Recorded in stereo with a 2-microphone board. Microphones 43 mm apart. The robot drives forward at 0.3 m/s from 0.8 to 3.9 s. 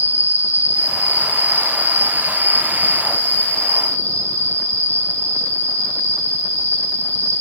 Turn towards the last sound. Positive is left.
turn(degrees=45)  # may be behind; listen again after turning